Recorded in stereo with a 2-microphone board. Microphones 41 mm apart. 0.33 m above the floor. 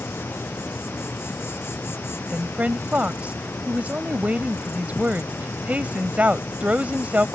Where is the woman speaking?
40° right (ahead or behind).